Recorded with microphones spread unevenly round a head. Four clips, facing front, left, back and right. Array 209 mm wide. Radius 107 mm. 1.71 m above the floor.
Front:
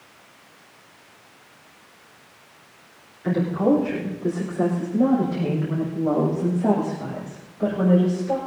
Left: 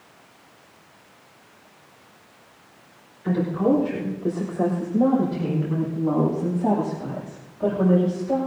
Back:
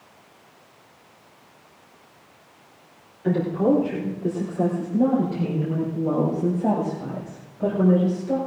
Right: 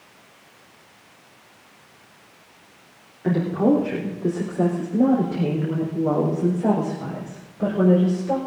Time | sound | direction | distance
3.2 | a woman speaking | 105° right | 4 m